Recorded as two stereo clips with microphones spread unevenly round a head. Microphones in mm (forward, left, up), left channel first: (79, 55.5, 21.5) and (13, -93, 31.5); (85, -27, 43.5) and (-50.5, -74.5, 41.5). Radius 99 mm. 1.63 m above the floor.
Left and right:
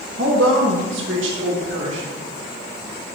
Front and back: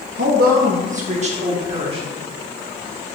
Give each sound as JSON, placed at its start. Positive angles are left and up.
{"t": 0.2, "sound": "a woman speaking", "azimuth_deg": -155, "distance_m": 1.1}